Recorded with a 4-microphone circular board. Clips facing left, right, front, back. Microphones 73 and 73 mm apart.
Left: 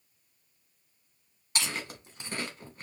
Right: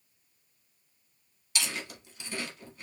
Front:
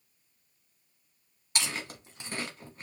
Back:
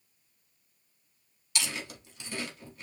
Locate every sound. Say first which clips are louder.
1.6 s chewing: left 1 dB, front 1 dB; 45° left, 0.8 m